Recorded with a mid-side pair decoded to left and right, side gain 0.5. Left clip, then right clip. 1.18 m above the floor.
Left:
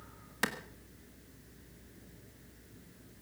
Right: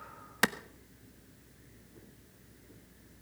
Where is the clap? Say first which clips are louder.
Right 5 dB; 40° right, 1.2 m.